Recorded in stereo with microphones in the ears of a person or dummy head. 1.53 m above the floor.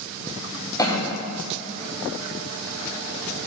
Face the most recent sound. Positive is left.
turn(degrees=15)  # may be behind; listen again after turning